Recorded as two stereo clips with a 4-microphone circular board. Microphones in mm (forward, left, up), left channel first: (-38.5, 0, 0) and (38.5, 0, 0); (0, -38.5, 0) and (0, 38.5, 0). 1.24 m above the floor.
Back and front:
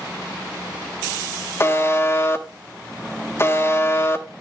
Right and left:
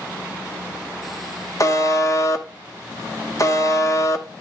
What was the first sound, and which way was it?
A buzzer, 130° right.